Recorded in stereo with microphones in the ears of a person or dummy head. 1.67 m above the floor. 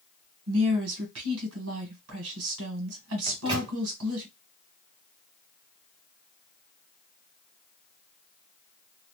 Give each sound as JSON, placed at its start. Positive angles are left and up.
{"t": 0.5, "sound": "a woman speaking", "side_deg": -75, "distance_m": 1.3}
{"t": 3.3, "sound": "a microwave", "side_deg": -25, "distance_m": 0.8}